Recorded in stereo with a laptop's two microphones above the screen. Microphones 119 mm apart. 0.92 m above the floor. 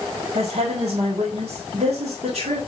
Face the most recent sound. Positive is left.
turn(degrees=-70)  # may be behind; listen again after turning